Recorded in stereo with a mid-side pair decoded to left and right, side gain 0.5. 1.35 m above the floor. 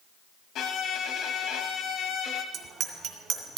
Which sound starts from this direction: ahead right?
A bicycle bell, at 2.5 s.